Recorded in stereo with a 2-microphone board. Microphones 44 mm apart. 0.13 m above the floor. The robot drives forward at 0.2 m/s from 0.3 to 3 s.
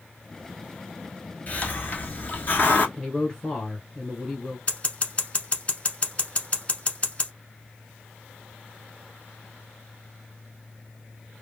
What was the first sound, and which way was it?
A hiss, 35° left (ahead or behind).